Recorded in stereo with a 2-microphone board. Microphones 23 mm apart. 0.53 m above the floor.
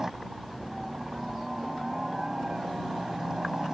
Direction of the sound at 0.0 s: 25° right (ahead or behind).